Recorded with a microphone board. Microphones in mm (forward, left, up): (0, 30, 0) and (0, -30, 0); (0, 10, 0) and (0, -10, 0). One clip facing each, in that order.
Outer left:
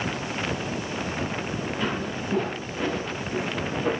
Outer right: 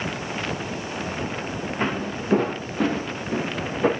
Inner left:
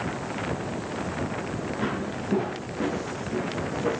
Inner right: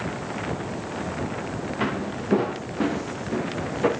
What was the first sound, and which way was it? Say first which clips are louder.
Footsteps: outer right 5 dB, inner right 4 dB; 45° right (ahead or behind).